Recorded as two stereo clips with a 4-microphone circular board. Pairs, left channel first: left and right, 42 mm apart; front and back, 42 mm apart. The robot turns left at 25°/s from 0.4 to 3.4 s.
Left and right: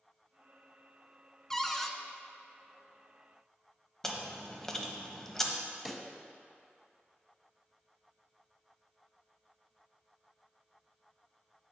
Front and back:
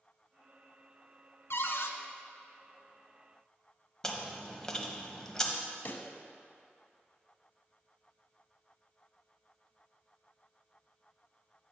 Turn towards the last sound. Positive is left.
turn(degrees=5)